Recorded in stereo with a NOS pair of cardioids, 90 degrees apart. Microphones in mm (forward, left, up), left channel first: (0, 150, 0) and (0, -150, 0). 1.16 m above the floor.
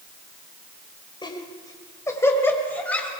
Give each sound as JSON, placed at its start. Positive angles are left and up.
{"t": 1.2, "sound": "laughter", "azimuth_deg": 15, "distance_m": 4.5}